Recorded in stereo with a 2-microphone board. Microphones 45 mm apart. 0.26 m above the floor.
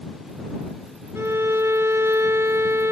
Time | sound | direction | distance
1.1 | a violin | 80° right | ?